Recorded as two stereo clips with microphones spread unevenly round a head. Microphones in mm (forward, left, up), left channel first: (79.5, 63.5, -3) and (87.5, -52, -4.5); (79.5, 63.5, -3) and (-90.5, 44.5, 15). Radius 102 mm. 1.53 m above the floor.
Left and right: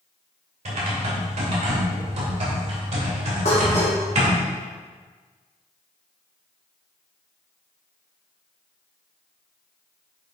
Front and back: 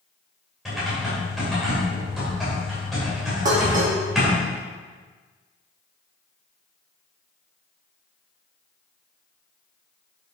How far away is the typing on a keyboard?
About 2 m.